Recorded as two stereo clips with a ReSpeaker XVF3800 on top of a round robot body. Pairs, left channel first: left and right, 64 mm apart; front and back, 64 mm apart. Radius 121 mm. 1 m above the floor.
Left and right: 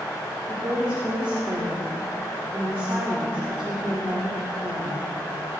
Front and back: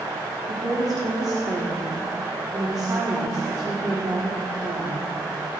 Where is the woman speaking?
160° right, 3 m.